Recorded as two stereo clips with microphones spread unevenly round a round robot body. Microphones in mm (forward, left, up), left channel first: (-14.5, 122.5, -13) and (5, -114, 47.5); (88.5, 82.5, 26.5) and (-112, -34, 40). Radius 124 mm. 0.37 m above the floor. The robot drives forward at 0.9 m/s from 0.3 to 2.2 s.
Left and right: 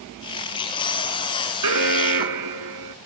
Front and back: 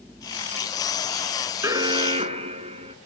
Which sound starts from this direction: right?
An alarm, at 1.6 s.